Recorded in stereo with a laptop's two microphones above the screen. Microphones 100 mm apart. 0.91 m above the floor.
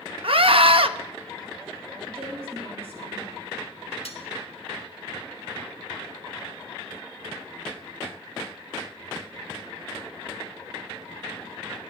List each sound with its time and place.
0.2 s a scream: 65° right (ahead or behind), 0.9 m
2.1 s a woman speaking: 85° right, 6 m
4.0 s cutlery clinking: 70° left (ahead or behind), 1.4 m